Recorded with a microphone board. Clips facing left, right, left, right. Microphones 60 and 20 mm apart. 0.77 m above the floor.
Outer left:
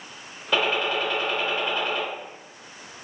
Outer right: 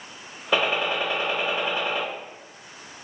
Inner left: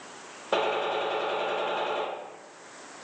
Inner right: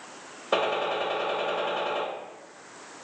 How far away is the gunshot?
About 0.8 m.